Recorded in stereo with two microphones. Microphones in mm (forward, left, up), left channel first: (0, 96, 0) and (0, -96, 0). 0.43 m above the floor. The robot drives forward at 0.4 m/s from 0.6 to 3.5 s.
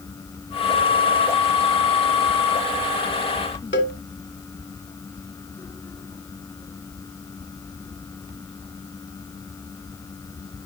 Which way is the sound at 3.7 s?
85° left.